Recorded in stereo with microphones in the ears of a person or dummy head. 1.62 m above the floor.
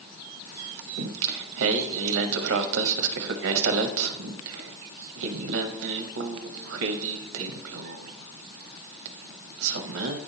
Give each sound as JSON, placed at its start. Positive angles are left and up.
{"t": 1.0, "sound": "singing", "side_deg": -80, "distance_m": 0.8}